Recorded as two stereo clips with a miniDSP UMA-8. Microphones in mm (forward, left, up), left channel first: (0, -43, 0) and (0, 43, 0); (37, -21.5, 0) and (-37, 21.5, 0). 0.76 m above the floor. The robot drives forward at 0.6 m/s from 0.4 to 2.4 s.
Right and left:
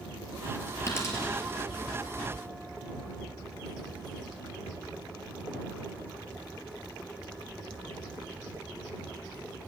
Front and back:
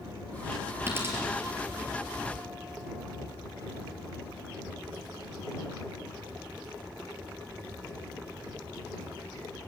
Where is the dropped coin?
150° right, 4 m.